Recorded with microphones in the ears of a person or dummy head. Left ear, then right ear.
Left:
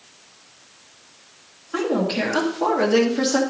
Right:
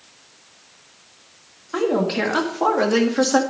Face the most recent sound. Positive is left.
turn(degrees=-45)  # may be behind; listen again after turning